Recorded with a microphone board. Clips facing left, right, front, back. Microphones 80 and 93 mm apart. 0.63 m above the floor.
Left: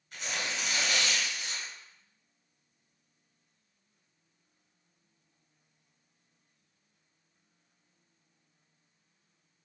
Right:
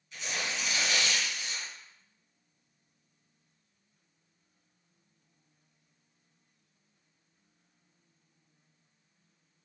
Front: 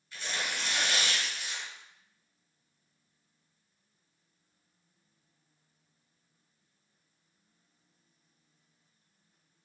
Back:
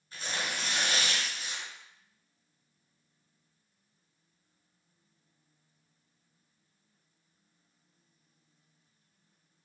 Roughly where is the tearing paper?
Behind left.